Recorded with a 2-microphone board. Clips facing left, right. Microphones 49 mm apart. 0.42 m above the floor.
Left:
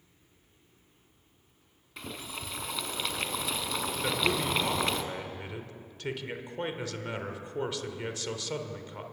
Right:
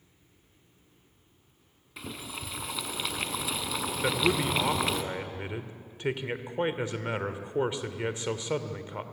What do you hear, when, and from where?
2.0 s boiling: centre (ahead or behind), 1.4 m
4.0 s a man speaking: 25° right (ahead or behind), 1.6 m